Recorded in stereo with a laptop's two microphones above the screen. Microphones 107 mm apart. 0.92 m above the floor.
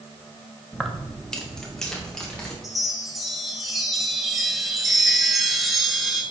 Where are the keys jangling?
5° left (ahead or behind), 0.7 m.